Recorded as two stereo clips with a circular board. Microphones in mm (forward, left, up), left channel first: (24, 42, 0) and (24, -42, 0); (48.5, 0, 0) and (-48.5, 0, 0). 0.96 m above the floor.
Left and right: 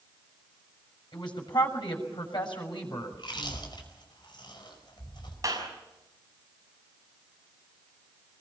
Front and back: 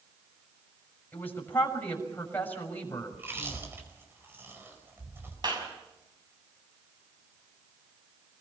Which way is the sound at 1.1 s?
70° left.